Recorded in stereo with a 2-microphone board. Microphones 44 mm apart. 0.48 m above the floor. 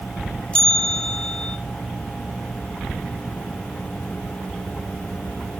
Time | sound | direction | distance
0.5 | a bell | 25° left (ahead or behind) | 1.4 m